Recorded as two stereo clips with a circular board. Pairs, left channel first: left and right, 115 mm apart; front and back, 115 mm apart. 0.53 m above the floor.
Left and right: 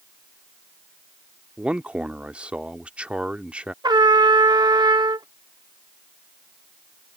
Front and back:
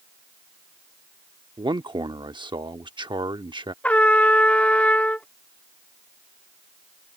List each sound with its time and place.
1.6 s a man speaking: 165° right
3.8 s a trumpet: 70° right